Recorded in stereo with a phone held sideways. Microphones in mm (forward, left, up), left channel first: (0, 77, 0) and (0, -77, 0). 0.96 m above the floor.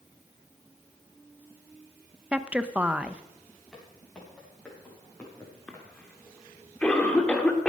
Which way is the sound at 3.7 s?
5° left (ahead or behind).